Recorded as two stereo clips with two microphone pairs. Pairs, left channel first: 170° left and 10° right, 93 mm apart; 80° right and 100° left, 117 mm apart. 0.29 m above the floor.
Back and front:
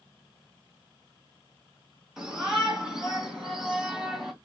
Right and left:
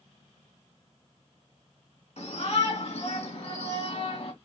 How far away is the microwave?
No microwave in this recording.